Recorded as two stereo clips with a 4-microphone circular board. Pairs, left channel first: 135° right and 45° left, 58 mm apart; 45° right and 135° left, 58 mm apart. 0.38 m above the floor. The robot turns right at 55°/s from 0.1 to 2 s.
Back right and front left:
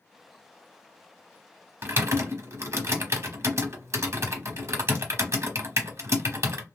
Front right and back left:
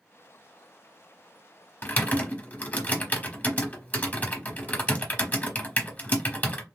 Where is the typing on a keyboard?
5° left, 0.8 m; by 6.6 s 15° left, 0.8 m.